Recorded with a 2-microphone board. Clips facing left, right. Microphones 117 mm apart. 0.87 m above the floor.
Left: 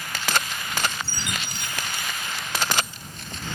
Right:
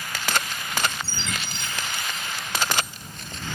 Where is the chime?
15° left (ahead or behind).